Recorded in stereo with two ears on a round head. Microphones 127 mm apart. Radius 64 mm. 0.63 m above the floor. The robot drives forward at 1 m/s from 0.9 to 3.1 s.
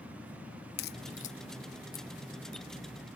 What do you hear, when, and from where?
0.8 s a crack: 75° left (ahead or behind), 0.5 m; by 2.1 s 25° left (ahead or behind), 1.3 m